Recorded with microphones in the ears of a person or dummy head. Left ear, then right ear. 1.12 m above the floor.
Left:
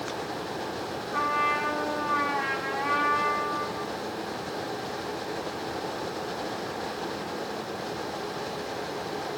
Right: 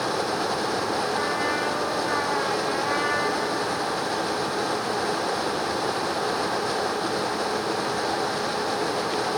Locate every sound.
1.1 s a trumpet: 70° left (ahead or behind), 3 m